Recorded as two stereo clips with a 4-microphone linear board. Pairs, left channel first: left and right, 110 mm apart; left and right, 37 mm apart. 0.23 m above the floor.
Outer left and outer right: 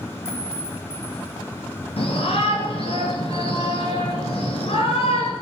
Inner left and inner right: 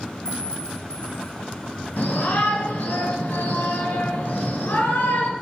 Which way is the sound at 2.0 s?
55° left (ahead or behind).